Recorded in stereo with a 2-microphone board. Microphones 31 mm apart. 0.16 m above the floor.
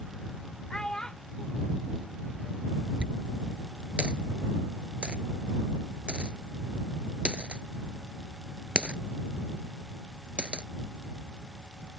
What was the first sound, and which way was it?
A child speaking, 30° left (ahead or behind).